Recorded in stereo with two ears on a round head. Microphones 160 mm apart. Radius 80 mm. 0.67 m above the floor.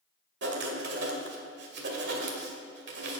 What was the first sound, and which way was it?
Writing, 65° right (ahead or behind).